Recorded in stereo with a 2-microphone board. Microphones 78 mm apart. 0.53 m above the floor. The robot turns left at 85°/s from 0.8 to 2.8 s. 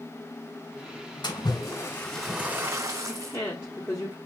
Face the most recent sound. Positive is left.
turn(degrees=30)  # may be behind; listen again after turning